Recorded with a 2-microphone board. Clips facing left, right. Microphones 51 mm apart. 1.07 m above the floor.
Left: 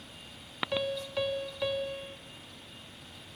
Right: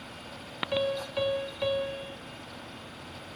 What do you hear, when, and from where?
0.7 s a piano: 5° right (ahead or behind), 2.5 m